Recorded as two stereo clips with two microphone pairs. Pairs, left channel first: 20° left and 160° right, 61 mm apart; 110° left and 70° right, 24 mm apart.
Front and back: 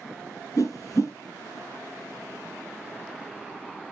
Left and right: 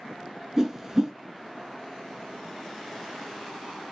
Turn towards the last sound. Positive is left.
turn(degrees=5)